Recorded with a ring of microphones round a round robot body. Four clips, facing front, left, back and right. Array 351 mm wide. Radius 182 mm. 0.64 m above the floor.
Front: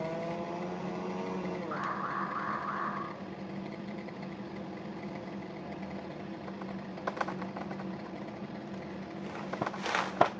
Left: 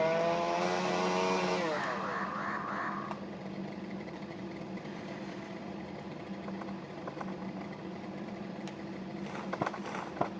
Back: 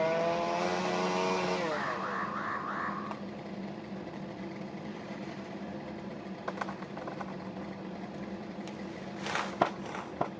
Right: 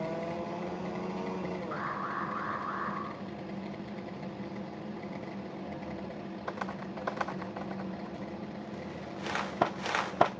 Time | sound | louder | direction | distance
1.7 | an alarm | left 1 dB, back 1 dB | 130° left | 5.5 m